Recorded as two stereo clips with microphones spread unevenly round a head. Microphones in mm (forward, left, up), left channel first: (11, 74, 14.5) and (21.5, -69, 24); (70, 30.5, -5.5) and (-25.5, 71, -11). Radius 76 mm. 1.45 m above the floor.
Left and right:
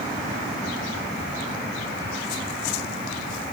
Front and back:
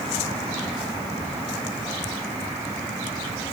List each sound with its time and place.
Only background noise.